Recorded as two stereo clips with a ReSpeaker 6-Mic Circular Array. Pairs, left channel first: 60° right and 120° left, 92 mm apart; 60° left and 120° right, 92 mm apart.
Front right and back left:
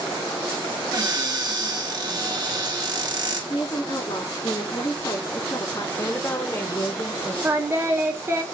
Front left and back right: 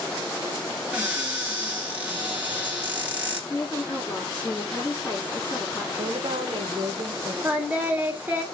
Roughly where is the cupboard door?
Behind.